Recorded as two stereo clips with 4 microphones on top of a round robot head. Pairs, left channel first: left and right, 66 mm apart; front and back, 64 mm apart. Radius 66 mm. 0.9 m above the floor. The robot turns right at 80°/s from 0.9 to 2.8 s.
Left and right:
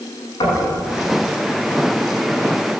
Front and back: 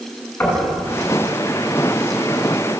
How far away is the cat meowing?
No cat meowing in this recording.